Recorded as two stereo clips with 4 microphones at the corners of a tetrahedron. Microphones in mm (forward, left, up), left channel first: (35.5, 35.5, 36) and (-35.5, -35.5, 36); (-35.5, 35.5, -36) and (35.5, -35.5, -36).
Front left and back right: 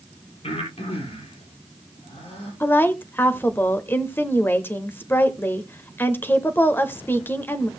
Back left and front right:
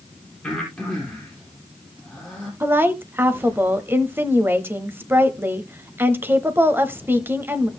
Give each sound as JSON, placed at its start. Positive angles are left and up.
{"t": 0.4, "sound": "breathing", "azimuth_deg": 50, "distance_m": 4.0}
{"t": 2.6, "sound": "a woman speaking", "azimuth_deg": 0, "distance_m": 0.9}